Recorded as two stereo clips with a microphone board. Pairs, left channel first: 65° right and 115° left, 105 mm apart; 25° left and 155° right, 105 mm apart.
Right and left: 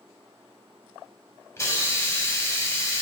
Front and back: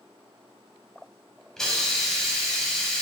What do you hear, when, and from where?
1.6 s a hiss: 55° right, 0.8 m